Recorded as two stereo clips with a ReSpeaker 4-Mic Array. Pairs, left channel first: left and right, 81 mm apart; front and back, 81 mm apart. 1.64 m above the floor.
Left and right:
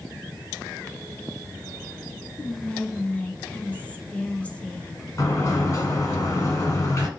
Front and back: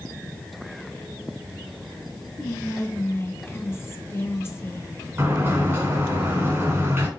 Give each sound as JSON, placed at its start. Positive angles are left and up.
{"t": 2.4, "sound": "whispering", "azimuth_deg": 30, "distance_m": 0.6}
{"t": 5.2, "sound": "a sliding door", "azimuth_deg": 125, "distance_m": 2.0}